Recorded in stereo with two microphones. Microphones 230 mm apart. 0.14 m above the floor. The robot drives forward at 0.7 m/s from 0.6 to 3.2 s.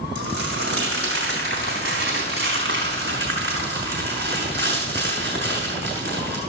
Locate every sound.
0.1 s crumpling: 70° right (ahead or behind), 6 m; by 6.4 s 55° right (ahead or behind), 6.5 m